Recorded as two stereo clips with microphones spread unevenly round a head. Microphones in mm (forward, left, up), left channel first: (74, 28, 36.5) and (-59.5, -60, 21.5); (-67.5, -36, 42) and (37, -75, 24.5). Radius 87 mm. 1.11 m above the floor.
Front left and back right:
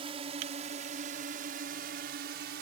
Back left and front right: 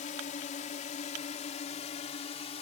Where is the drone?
155° left; by 2.6 s 175° right.